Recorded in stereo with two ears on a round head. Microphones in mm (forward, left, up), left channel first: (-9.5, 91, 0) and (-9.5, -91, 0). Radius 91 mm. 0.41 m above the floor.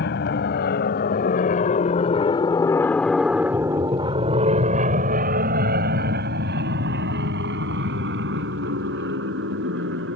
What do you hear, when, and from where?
0.0 s an aircraft: 55° left (ahead or behind); by 10.2 s 60° right (ahead or behind)